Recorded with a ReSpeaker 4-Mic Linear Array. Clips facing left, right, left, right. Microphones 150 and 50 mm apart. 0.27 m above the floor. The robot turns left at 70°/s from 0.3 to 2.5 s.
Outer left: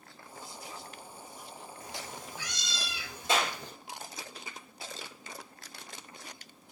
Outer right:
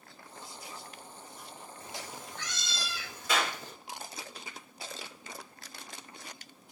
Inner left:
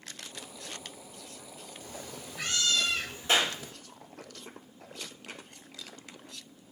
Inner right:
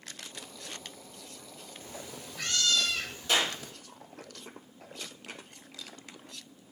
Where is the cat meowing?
145° right, 1.1 m; by 3.7 s 165° left, 1.1 m.